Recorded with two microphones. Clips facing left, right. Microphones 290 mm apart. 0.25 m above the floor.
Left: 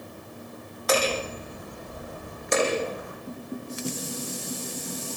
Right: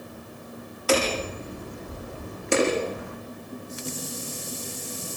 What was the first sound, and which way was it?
Hammering, 35° right (ahead or behind).